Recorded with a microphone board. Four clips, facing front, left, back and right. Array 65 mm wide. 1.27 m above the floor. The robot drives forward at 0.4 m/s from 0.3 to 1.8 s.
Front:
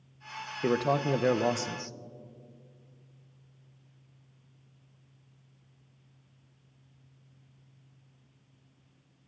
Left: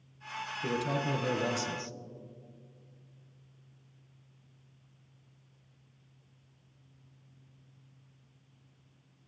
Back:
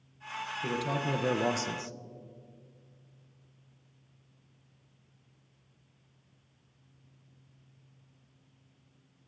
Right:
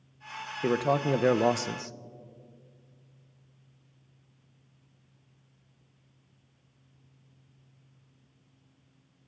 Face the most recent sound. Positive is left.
turn(degrees=-100)